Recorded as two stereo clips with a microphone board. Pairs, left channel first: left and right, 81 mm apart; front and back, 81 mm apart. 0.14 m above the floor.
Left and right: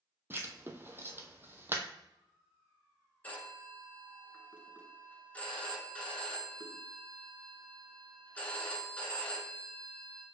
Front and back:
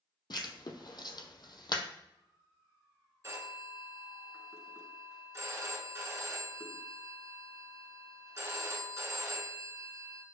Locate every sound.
0.3 s writing: 30° right, 0.8 m
3.2 s a phone ringing: 150° left, 1.4 m